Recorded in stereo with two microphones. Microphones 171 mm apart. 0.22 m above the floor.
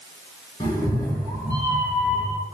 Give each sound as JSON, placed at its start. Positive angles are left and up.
{"t": 0.6, "sound": "a cat meowing", "side_deg": 25, "distance_m": 1.1}